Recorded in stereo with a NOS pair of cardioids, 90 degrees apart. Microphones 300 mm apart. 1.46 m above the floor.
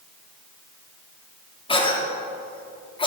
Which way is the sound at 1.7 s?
15° left.